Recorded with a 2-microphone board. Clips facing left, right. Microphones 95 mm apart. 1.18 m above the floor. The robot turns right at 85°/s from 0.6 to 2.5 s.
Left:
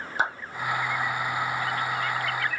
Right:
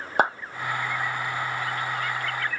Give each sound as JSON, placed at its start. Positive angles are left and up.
{"t": 0.2, "sound": "a clap", "side_deg": -55, "distance_m": 1.3}